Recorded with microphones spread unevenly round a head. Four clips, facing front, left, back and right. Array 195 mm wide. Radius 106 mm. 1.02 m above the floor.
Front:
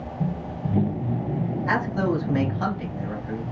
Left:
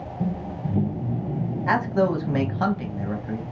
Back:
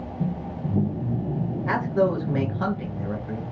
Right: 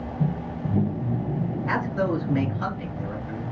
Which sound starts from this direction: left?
A man speaking, at 1.7 s.